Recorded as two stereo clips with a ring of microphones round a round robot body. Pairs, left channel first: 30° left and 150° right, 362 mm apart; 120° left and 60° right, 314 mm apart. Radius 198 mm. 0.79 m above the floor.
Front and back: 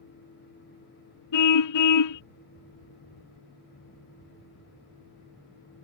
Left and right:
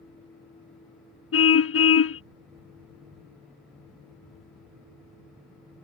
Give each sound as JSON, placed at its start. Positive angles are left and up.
{"t": 1.3, "sound": "a car horn", "azimuth_deg": 75}